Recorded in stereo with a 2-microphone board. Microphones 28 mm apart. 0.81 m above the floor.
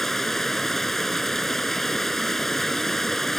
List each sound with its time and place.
0.0 s running water: 10° left (ahead or behind)